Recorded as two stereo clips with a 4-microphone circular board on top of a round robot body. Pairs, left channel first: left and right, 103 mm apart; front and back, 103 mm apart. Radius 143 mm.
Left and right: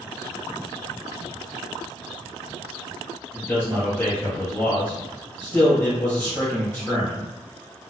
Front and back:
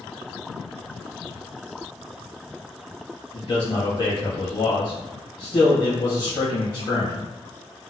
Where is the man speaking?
30° left, 1.3 m.